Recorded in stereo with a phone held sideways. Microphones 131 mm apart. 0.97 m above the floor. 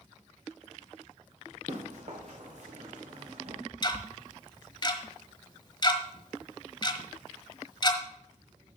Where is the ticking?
35° left (ahead or behind), 1.3 m.